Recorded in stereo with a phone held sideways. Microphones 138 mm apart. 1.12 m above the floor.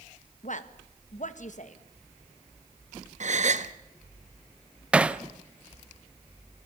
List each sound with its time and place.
0.4 s a woman speaking: 65° left (ahead or behind), 1.4 m
3.2 s a gasp: 60° right (ahead or behind), 0.9 m
4.9 s hammering: 10° right (ahead or behind), 0.7 m